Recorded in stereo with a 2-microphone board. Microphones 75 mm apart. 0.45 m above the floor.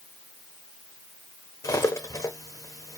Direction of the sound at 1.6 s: 45° left (ahead or behind).